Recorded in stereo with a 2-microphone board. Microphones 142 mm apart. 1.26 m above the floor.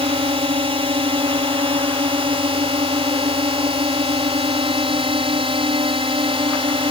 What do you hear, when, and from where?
0.0 s a drone: 45° right (ahead or behind)